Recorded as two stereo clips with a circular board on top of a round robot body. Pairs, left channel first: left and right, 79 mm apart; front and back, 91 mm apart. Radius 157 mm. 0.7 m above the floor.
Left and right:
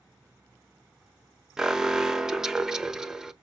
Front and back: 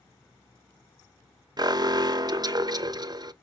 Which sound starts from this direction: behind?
An alarm, at 1.6 s.